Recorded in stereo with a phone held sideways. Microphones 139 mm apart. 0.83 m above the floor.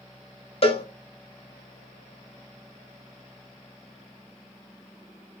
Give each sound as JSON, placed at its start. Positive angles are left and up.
{"t": 0.6, "sound": "a cowbell", "side_deg": 45, "distance_m": 0.6}